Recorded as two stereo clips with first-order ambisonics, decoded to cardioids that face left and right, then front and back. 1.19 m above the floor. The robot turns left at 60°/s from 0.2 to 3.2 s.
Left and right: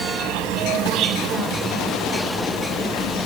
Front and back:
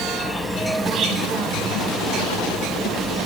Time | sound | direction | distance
0.0 | an insect | 80° right | 1.0 m